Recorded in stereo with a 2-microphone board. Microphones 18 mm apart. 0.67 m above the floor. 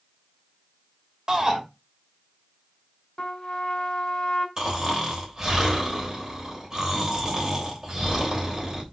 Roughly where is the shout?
Right.